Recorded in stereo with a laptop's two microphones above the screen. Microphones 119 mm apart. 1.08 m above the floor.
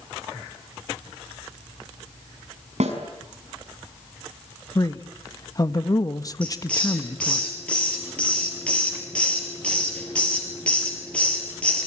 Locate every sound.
2.8 s a snare drum: 85° right, 6 m
4.8 s a man speaking: 35° left (ahead or behind), 1.4 m
6.4 s a hiss: 10° left (ahead or behind), 4.5 m